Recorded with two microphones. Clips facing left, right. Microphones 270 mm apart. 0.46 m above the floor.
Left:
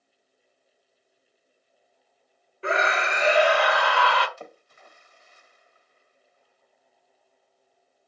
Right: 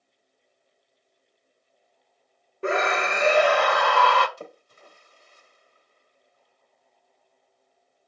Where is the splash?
40° right (ahead or behind), 1.1 m.